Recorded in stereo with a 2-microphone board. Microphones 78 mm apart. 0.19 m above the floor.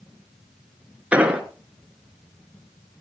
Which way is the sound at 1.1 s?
15° right (ahead or behind).